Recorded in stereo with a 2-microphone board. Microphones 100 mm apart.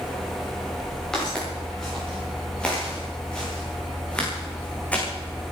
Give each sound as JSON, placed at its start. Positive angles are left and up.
{"t": 1.1, "sound": "footsteps", "side_deg": 5, "distance_m": 10.0}